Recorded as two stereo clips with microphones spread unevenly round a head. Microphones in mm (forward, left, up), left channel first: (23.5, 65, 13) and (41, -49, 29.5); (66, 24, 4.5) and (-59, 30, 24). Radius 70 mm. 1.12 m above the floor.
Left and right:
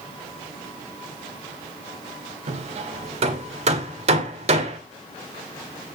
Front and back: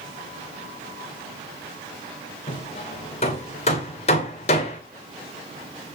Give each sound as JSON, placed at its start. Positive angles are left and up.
{"t": 2.5, "sound": "hammering", "azimuth_deg": -50, "distance_m": 2.0}